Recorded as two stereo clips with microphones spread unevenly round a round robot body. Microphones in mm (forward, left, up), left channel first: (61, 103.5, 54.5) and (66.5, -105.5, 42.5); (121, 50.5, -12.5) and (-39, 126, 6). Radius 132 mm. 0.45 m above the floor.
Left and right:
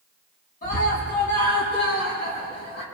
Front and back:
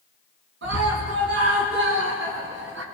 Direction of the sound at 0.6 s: 150° left.